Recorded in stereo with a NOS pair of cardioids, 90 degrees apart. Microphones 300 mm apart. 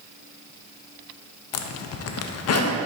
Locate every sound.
1.5 s a zipper: 60° left, 0.5 m